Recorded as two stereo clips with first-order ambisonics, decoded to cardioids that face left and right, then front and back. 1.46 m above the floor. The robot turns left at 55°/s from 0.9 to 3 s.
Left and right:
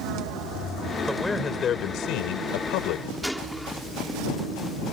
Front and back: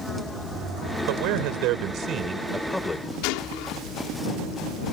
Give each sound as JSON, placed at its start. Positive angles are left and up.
{"t": 1.1, "sound": "a man speaking", "azimuth_deg": 180}
{"t": 3.2, "sound": "a gunshot", "azimuth_deg": 5}